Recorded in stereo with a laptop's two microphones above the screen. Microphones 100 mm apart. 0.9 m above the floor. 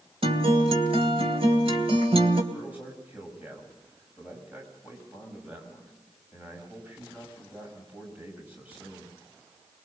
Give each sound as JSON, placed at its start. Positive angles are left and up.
{"t": 0.2, "sound": "a guitar", "side_deg": -80, "distance_m": 2.5}
{"t": 2.5, "sound": "a man speaking", "side_deg": -15, "distance_m": 6.0}